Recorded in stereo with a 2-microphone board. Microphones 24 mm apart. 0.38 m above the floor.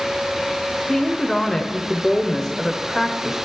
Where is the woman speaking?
15° left (ahead or behind), 1.0 m.